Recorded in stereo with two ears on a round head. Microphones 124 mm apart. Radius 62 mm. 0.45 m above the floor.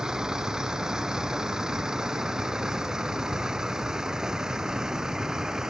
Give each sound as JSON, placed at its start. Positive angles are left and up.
{"t": 0.0, "sound": "a vehicle", "side_deg": -5}